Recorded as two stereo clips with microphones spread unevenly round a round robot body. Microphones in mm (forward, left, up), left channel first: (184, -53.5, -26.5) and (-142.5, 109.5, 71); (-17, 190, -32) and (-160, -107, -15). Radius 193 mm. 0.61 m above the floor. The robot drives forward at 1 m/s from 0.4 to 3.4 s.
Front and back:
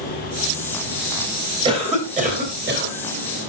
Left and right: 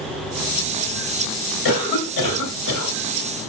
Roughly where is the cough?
Left.